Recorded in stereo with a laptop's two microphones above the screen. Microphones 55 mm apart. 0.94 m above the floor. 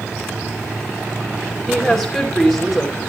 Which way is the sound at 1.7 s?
5° left (ahead or behind).